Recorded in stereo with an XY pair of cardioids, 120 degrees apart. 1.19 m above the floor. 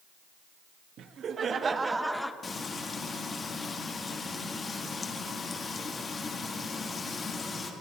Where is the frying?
30° left, 1.6 m.